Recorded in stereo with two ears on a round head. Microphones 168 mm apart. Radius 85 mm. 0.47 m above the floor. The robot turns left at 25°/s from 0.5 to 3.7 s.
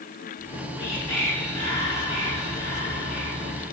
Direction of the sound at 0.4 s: 115° left.